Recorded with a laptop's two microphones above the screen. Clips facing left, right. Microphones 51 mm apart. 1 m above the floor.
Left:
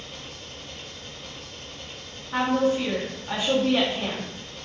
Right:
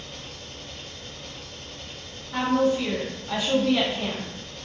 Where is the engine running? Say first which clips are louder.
Even; 5° left (ahead or behind), 1.0 m.